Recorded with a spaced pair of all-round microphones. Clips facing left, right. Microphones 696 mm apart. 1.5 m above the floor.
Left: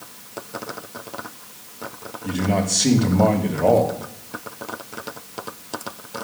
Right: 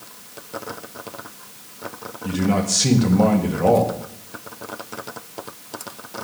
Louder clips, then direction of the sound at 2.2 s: Right 1 dB; 40° right (ahead or behind).